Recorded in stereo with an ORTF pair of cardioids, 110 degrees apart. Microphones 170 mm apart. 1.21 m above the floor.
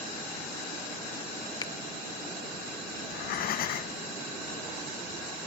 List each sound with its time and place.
1.6 s a finger snap: 25° left, 1.2 m
3.0 s breathing: 70° left, 1.2 m